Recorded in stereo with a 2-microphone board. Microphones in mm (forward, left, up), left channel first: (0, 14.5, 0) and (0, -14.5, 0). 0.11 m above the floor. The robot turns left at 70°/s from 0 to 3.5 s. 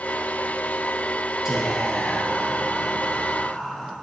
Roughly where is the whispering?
Centre.